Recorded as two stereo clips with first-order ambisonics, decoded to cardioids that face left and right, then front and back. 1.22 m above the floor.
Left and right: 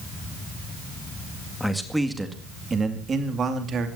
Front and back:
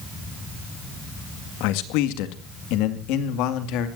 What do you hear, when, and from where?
1.6 s a man speaking: 5° left, 2 m; by 3.9 s 30° right, 2.5 m